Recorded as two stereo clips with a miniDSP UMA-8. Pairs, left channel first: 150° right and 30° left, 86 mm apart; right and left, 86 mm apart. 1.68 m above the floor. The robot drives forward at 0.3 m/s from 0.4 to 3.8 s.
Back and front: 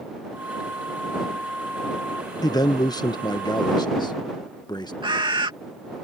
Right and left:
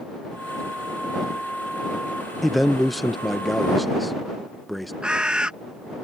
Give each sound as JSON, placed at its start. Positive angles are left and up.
{"t": 2.4, "sound": "a man speaking", "azimuth_deg": 180}
{"t": 5.0, "sound": "a bird", "azimuth_deg": 10}